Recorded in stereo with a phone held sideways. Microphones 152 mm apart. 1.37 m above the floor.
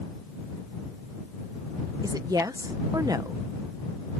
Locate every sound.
2.0 s a woman speaking: 25° right (ahead or behind)